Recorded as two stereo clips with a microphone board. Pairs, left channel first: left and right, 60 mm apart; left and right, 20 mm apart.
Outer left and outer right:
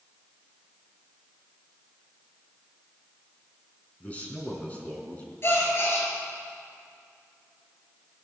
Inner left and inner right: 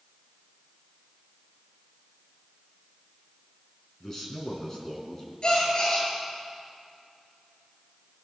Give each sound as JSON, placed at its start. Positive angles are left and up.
{"t": 4.0, "sound": "a man speaking", "side_deg": 25, "distance_m": 3.5}
{"t": 5.4, "sound": "a gasp", "side_deg": 50, "distance_m": 6.5}